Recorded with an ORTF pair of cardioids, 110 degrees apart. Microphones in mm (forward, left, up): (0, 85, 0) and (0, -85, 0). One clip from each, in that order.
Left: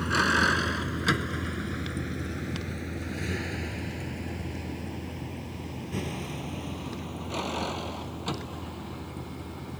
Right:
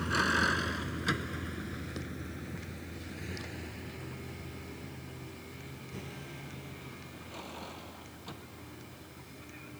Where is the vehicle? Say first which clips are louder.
Left 5 dB; 30° left; by 9.8 s 75° left.